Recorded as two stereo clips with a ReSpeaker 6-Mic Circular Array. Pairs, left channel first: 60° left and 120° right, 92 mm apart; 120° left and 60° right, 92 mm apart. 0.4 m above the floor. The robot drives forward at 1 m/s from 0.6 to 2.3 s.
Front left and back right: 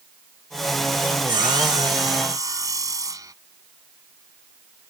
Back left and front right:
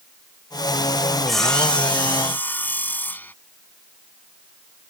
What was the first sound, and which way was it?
Sawing, 150° right.